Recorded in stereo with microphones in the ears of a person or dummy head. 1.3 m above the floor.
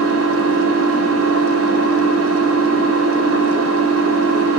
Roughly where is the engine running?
Right.